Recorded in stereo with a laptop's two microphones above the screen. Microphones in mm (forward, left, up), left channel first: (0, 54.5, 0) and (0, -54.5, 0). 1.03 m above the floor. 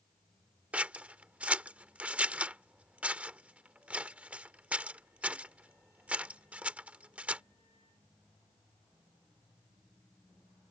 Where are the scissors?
10° right (ahead or behind).